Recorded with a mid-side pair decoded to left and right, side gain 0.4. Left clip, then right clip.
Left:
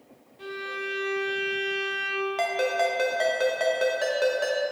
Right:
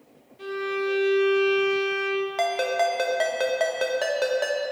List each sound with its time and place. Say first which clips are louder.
0.4 s a violin: right 5 dB; 20° right, 1.5 m
2.4 s a ringtone: right 1 dB; 25° right, 1.3 m